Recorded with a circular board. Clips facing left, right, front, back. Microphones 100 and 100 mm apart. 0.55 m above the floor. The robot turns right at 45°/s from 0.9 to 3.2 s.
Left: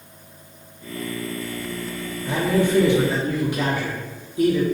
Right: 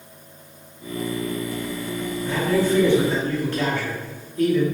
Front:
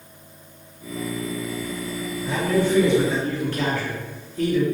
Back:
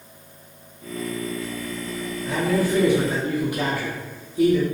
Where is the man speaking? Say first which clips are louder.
Left 1 dB, front 1 dB; 95° left, 0.8 m; by 4.6 s 135° left, 0.8 m.